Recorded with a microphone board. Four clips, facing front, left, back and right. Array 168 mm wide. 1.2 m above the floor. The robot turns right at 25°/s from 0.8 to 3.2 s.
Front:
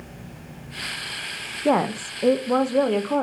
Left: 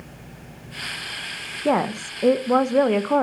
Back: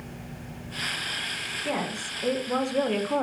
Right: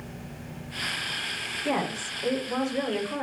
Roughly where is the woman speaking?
Ahead left.